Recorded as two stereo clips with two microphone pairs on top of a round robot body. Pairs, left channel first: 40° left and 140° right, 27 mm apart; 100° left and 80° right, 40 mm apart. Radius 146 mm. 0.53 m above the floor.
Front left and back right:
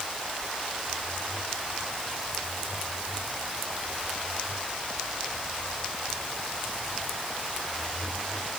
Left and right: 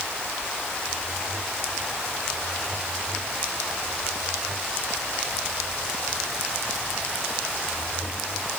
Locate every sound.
Only background noise.